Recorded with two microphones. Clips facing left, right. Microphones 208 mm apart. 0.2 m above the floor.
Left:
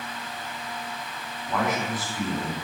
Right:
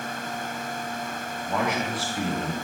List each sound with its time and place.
1.5 s a man speaking: 25° right (ahead or behind), 1.4 m